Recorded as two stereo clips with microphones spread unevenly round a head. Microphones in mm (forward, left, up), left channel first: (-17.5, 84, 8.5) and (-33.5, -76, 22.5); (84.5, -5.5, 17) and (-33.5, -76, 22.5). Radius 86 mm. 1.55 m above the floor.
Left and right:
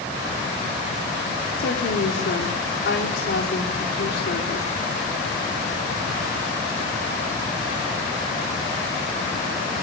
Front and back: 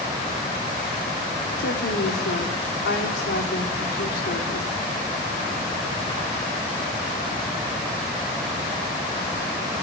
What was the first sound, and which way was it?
A woman speaking, 50° left.